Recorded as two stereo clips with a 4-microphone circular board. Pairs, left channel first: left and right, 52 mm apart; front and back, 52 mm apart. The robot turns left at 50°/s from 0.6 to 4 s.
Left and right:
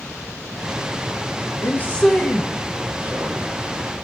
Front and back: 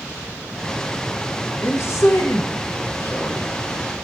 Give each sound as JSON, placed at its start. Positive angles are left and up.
{"t": 1.6, "sound": "a man speaking", "azimuth_deg": 40, "distance_m": 0.9}